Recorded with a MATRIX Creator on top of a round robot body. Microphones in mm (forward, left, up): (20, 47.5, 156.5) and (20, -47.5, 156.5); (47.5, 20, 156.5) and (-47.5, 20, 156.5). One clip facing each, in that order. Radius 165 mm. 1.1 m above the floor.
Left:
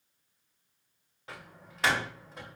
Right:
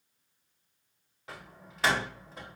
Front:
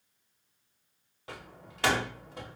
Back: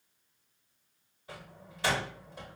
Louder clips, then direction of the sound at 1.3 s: Even, front 2 dB; straight ahead.